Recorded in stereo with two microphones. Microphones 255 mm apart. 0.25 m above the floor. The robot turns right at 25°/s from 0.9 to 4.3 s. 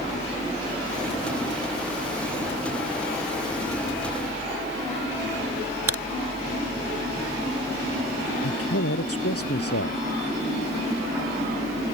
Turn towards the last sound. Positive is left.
turn(degrees=70)  # may be behind; listen again after turning